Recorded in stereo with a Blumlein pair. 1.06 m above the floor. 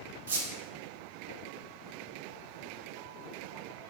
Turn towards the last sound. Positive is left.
turn(degrees=-65)